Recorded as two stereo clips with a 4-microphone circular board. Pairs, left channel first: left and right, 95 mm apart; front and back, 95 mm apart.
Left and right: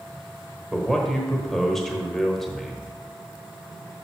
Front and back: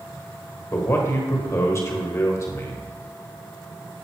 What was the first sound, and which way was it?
A man speaking, 5° left.